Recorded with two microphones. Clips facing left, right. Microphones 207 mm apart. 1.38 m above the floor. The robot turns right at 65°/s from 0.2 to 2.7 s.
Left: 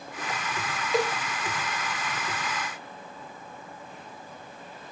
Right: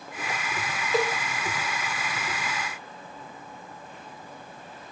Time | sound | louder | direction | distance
0.9 | a cowbell | right 1 dB | 5° right (ahead or behind) | 2.0 m